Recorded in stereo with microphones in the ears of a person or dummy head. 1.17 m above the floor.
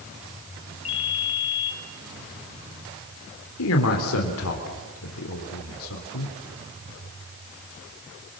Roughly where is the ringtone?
Left.